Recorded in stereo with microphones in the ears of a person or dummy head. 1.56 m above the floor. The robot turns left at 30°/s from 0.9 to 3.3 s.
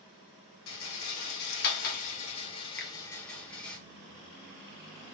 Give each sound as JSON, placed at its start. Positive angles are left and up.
{"t": 0.7, "sound": "a rattle", "side_deg": 75, "distance_m": 1.2}
{"t": 2.8, "sound": "a finger snap", "side_deg": 5, "distance_m": 1.0}